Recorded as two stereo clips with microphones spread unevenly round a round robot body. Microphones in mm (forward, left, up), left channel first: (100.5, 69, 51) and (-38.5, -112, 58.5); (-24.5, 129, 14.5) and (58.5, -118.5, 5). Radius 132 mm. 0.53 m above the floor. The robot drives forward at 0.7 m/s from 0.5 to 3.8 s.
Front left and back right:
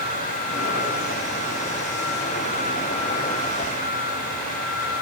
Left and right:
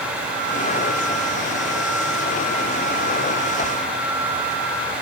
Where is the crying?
I don't hear crying.